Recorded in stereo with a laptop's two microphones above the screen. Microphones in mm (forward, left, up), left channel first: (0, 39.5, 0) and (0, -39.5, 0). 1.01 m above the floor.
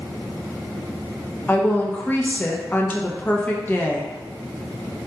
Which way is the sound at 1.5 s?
20° left (ahead or behind).